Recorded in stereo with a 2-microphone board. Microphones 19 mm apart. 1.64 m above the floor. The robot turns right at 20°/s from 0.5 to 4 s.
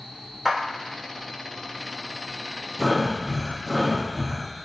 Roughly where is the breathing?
Centre.